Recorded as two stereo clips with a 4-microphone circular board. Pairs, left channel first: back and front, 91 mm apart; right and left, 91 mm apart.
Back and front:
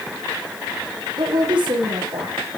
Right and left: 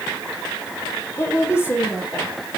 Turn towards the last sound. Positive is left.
turn(degrees=-30)